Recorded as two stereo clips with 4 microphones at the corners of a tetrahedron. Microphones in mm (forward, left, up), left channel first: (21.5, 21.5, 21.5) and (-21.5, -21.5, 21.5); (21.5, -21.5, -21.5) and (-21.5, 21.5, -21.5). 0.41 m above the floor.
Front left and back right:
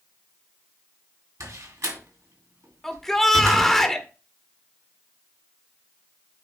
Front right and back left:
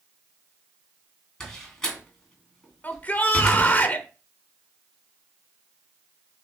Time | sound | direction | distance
1.4 | a door slam | 125° right | 2.5 m
2.8 | a shout | 30° right | 1.0 m